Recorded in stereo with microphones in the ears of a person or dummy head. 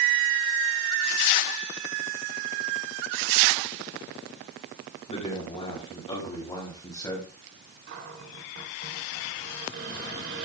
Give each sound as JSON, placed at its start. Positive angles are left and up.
{"t": 5.1, "sound": "a man speaking", "side_deg": 35, "distance_m": 3.5}
{"t": 7.9, "sound": "a cupboard door", "side_deg": -50, "distance_m": 3.0}